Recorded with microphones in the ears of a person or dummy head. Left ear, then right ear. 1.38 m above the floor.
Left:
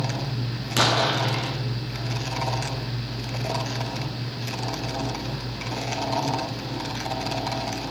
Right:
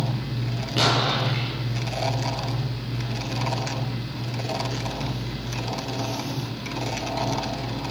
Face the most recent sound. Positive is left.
turn(degrees=55)  # may be behind; listen again after turning